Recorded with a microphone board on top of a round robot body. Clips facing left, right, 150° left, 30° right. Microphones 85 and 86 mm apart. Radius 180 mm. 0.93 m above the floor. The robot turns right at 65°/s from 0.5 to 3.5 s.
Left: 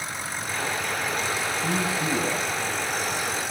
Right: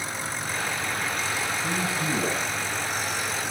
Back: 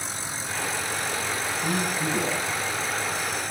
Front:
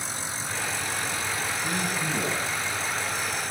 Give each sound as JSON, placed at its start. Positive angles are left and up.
{"t": 1.6, "sound": "a man speaking", "azimuth_deg": 175, "distance_m": 8.5}